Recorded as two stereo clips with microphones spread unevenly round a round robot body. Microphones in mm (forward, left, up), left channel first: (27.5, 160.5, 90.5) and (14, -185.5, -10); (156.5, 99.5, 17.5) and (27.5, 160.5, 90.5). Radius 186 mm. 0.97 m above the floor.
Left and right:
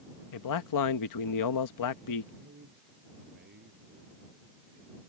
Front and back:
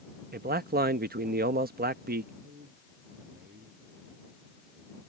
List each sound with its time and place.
0.3 s a man speaking: 130° left
2.4 s a man speaking: 155° right